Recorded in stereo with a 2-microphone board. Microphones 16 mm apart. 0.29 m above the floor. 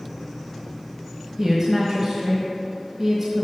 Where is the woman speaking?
45° right (ahead or behind), 1.4 m.